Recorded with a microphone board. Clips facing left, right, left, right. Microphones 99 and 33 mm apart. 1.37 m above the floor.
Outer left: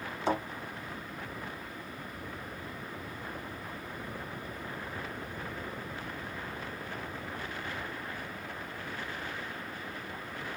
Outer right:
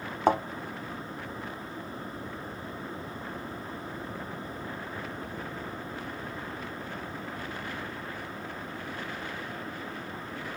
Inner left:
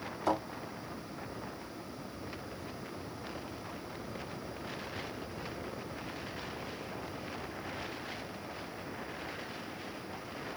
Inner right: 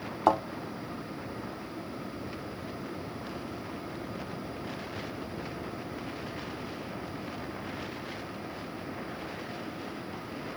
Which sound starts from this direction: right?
A thud, at 0.3 s.